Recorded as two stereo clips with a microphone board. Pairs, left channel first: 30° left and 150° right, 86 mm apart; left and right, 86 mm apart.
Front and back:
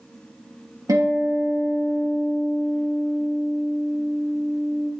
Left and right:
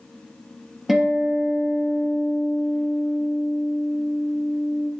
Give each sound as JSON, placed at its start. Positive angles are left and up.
{"t": 0.9, "sound": "a guitar", "azimuth_deg": 180, "distance_m": 2.5}